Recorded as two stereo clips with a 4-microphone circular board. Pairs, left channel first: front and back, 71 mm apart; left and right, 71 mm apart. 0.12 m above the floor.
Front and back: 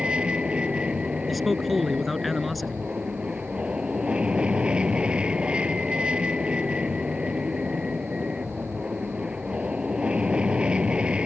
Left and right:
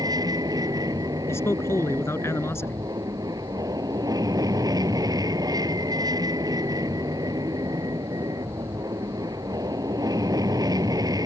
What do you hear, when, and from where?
0.0 s an aircraft: 105° right
1.3 s a man speaking: 90° left